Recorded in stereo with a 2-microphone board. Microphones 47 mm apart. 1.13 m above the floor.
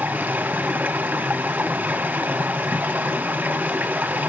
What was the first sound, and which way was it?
Running water, 35° right (ahead or behind).